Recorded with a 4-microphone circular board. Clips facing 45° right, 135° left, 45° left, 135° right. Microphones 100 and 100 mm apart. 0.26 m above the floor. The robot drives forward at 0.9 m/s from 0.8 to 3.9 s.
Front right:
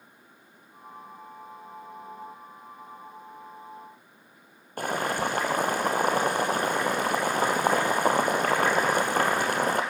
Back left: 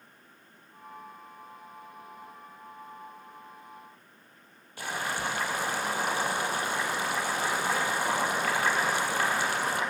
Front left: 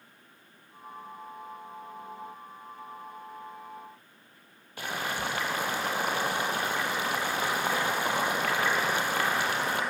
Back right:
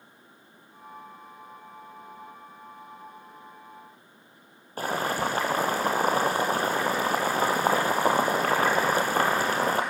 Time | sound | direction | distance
4.8 | boiling | 85° right | 2.5 m